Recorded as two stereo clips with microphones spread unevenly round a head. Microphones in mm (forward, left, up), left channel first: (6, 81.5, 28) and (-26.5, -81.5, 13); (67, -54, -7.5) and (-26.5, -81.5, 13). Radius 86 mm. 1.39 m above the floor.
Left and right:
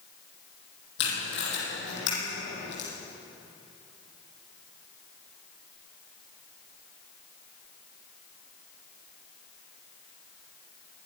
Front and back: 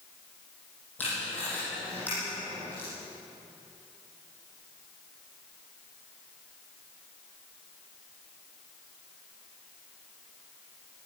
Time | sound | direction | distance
1.0 | tape being pulled | 100° left | 9.5 m